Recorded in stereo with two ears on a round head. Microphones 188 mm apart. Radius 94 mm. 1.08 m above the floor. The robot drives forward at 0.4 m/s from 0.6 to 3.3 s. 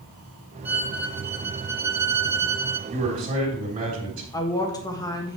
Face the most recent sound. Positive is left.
turn(degrees=20)  # may be behind; listen again after turning